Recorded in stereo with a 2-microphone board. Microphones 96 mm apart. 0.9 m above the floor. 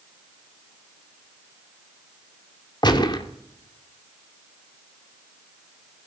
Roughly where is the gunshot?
Left.